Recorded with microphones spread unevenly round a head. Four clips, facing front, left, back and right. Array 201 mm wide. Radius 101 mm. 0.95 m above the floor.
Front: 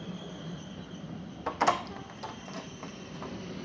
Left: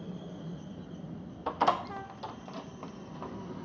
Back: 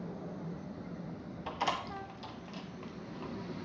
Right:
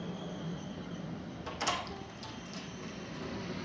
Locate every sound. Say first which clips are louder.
1.5 s a door slam: left 9 dB, front 7 dB; 35° left, 0.7 m